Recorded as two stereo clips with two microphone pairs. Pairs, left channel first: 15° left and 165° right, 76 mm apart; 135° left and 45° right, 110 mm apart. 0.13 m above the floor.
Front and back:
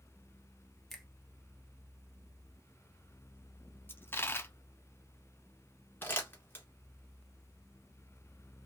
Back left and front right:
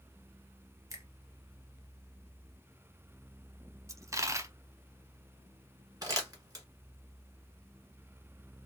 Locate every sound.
0.9 s a finger snap: 70° right, 0.9 m
3.9 s a dropped coin: 15° right, 0.6 m
6.0 s crumpling: 25° right, 1.4 m